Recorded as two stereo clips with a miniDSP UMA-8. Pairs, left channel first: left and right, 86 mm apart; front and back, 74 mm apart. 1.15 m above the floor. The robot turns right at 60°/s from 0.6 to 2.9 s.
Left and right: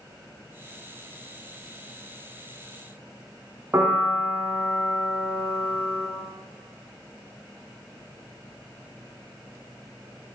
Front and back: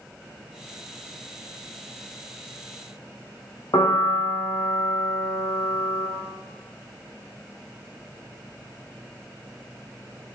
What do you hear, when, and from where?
3.7 s a piano: 30° right, 1.6 m